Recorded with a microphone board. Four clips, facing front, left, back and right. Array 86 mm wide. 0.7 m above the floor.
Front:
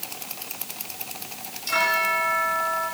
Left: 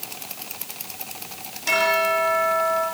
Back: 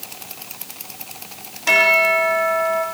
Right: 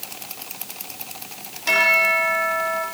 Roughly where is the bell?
Behind.